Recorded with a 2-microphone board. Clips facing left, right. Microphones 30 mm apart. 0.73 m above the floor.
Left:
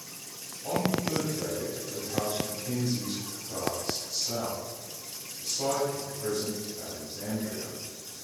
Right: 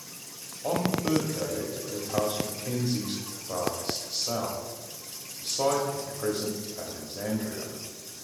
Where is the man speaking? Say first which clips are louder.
Right 2 dB; 60° right (ahead or behind), 1.3 m.